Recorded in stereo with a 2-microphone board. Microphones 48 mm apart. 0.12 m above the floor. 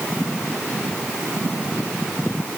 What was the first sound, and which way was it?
Only background noise.